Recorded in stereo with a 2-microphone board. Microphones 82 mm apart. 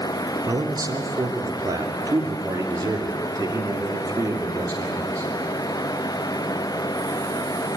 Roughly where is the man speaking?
Right.